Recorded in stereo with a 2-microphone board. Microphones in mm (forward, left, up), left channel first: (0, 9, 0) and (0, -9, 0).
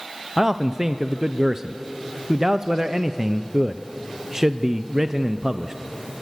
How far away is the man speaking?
About 0.6 m.